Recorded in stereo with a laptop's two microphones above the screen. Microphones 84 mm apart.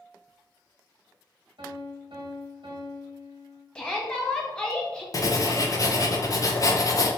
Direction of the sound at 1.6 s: 75° right (ahead or behind).